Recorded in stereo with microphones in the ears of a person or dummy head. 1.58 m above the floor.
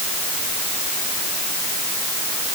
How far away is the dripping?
I don't hear dripping.